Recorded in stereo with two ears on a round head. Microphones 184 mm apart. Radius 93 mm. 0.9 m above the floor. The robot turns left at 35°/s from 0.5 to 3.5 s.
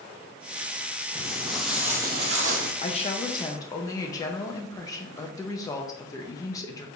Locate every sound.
1.1 s footsteps: centre (ahead or behind), 1.7 m; by 2.7 s 50° right (ahead or behind), 1.4 m
2.8 s a woman speaking: 35° left (ahead or behind), 0.7 m; by 7.0 s 15° left (ahead or behind), 0.7 m